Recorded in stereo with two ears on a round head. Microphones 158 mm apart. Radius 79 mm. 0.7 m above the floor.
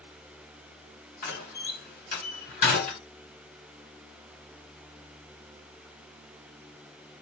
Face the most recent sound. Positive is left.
turn(degrees=45)  # may be behind; listen again after turning